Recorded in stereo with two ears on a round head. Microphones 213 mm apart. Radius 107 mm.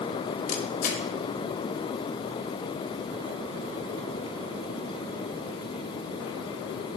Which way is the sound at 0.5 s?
30° left (ahead or behind).